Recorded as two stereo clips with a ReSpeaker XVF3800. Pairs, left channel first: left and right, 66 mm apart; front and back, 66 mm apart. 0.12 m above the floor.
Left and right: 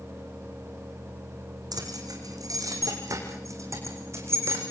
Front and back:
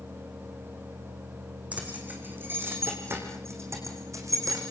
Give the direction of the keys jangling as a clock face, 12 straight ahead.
4 o'clock.